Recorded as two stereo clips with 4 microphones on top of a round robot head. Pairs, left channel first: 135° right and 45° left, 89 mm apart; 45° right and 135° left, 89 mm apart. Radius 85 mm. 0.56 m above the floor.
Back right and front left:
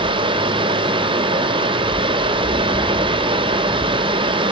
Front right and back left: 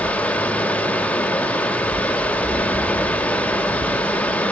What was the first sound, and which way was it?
Running water, 25° left.